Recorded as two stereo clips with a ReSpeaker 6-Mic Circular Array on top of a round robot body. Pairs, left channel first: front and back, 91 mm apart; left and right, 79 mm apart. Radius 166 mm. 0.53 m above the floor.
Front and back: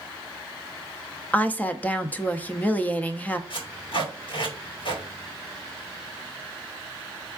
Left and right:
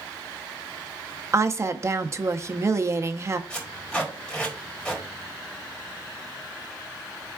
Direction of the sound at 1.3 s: 65° right.